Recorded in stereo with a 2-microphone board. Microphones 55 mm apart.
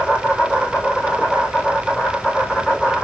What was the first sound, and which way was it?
An insect, 15° left (ahead or behind).